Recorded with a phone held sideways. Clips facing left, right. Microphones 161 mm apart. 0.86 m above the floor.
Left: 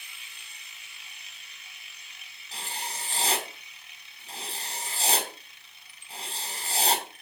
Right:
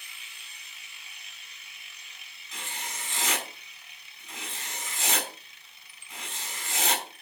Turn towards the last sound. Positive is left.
turn(degrees=35)  # may be behind; listen again after turning